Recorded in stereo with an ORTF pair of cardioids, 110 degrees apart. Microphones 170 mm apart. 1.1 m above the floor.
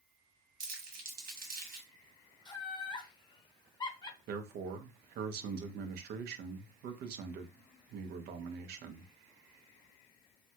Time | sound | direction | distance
0.6 | crumpling | 60° right | 1.2 m
2.5 | laughter | 20° left | 0.7 m
4.3 | a man speaking | 65° right | 0.7 m